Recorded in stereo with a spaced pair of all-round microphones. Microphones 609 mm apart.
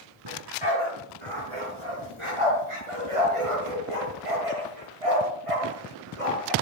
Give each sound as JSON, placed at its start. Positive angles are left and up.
{"t": 0.2, "sound": "a dog barking", "side_deg": -45, "distance_m": 5.0}